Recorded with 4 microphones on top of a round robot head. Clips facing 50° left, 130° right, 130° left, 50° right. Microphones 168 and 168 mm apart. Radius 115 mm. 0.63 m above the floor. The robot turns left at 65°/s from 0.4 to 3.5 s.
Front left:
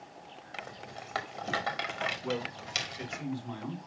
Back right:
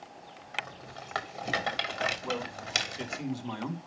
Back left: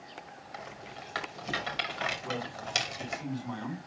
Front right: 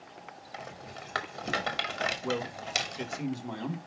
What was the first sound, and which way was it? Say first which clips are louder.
A rattle: back right 2 dB, front right 1 dB; 5° left.